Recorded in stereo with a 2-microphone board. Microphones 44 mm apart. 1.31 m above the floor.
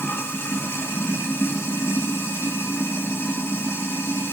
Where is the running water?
65° left (ahead or behind), 1.6 m.